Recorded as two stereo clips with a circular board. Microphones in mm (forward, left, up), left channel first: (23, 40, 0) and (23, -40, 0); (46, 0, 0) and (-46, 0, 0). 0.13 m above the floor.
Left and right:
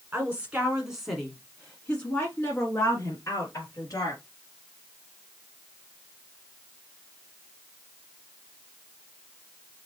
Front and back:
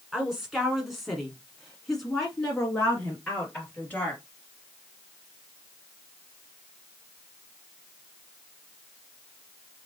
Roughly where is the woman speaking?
Right.